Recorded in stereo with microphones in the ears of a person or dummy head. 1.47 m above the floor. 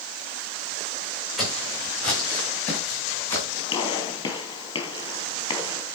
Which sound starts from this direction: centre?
Footsteps, at 1.4 s.